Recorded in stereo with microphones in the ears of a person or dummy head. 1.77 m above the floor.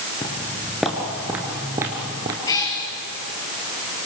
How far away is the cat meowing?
About 6 m.